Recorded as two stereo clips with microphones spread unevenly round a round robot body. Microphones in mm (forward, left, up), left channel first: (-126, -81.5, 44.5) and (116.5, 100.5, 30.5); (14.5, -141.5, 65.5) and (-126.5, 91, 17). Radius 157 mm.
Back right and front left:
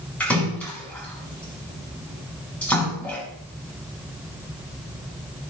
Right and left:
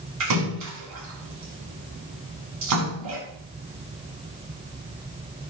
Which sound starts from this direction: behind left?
A splash, at 0.2 s.